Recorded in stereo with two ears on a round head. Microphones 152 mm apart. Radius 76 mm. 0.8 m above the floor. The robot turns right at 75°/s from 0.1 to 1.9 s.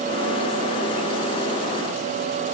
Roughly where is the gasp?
I don't hear a gasp.